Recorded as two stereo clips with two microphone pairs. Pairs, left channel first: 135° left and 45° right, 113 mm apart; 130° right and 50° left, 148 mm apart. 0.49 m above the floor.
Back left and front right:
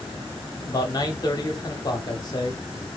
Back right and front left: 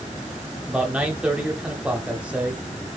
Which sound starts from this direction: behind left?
A man speaking, at 0.7 s.